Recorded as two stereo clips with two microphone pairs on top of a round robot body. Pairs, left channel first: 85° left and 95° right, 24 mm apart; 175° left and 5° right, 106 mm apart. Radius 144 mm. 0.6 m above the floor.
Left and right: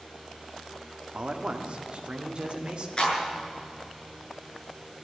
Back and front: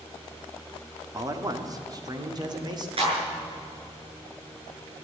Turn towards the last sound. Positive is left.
turn(degrees=30)